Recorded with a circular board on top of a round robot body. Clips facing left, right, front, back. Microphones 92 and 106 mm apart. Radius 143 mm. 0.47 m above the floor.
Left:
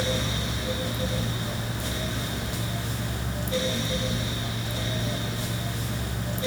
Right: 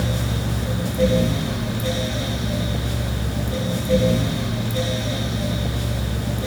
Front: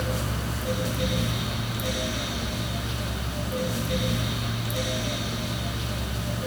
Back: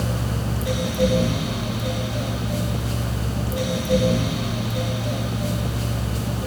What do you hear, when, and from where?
Only background noise.